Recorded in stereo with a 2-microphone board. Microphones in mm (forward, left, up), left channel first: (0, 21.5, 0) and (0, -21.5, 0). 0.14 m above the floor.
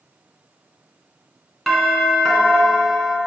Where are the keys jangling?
No keys jangling in this recording.